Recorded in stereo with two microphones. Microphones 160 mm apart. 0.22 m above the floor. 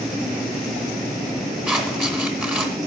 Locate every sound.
1.7 s scissors: 10° right (ahead or behind), 1.9 m